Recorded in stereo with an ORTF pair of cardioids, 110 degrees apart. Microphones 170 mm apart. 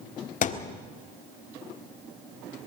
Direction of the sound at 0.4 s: 50° left.